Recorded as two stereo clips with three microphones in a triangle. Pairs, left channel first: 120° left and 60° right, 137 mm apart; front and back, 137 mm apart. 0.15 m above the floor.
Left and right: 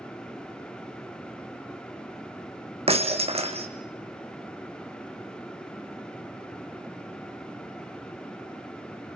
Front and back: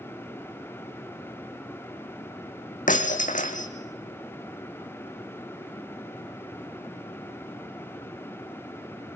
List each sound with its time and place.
2.9 s breaking glass: 15° right, 2.5 m